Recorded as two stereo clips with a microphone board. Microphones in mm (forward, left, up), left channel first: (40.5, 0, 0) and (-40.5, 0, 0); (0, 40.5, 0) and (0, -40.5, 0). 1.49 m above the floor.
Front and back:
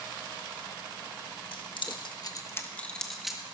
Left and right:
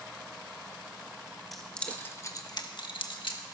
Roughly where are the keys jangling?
Ahead.